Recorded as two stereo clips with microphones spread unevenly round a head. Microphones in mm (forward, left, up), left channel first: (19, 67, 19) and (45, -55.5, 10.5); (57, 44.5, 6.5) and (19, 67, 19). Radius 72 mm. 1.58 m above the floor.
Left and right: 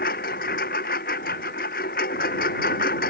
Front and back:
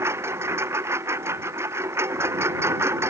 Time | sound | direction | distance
0.0 | a lawn mower | 135° left | ?